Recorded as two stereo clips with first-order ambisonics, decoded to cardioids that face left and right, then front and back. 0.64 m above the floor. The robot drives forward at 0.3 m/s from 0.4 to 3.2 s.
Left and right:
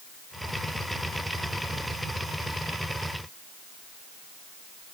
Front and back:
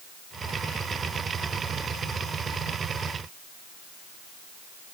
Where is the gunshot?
No gunshot in this recording.